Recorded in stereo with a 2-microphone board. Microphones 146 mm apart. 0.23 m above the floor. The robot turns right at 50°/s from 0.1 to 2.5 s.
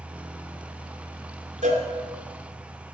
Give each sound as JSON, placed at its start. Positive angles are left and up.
{"t": 1.6, "sound": "a cowbell", "side_deg": -55, "distance_m": 1.8}